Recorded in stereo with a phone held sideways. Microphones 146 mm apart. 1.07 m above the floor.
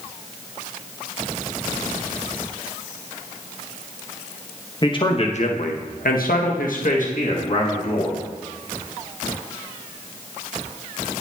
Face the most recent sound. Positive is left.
turn(degrees=50)  # may be behind; listen again after turning